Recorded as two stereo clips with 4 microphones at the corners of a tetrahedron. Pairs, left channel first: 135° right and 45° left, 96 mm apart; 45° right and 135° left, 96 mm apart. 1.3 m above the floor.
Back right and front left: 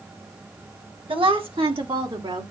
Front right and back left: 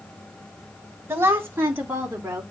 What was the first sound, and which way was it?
A woman speaking, 70° left.